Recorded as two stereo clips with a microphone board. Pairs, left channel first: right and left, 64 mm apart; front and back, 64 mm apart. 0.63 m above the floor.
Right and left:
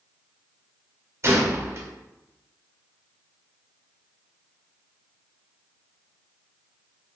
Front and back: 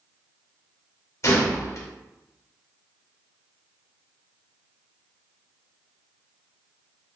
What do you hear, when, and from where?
1.2 s a gunshot: 45° left, 0.9 m